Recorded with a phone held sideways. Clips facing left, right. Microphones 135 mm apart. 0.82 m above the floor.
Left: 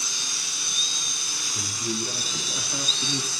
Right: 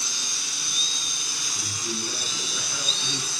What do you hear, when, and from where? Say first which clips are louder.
1.6 s a man speaking: left 4 dB; 35° left (ahead or behind), 6.5 m; by 3.3 s 25° left (ahead or behind), 8 m